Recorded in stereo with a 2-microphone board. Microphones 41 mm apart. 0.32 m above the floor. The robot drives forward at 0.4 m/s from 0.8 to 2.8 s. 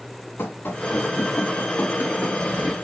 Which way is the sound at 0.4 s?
55° left (ahead or behind).